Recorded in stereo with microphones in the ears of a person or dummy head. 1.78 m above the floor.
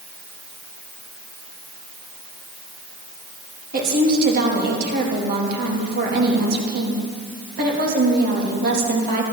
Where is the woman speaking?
50° right (ahead or behind), 3.5 m.